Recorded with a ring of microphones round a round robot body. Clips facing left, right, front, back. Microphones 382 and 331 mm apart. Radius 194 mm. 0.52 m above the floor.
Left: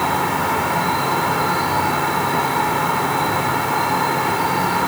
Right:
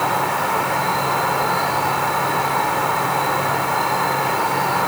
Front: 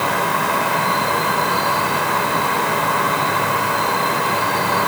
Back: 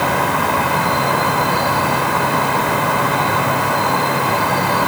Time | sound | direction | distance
0.0 | an insect | 150° left | 3.5 m